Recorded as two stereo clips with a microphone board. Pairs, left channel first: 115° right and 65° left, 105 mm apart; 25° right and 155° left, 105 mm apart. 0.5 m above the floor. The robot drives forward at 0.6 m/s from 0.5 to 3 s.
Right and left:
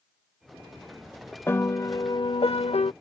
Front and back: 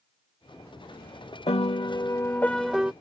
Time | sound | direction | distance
1.5 | a piano | 45° right | ?